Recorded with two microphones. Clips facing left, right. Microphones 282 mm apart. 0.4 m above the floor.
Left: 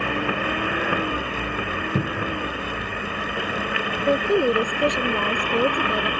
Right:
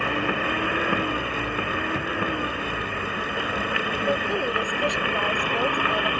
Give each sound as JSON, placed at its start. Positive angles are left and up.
{"t": 1.9, "sound": "a cupboard door", "side_deg": 50}
{"t": 4.1, "sound": "a woman speaking", "side_deg": 50}